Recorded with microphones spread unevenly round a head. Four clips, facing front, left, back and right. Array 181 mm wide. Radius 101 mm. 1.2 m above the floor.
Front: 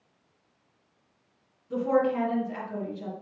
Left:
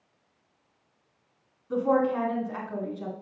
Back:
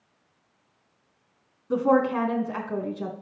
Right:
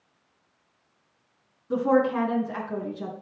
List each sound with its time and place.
1.7 s a woman speaking: 145° right, 3 m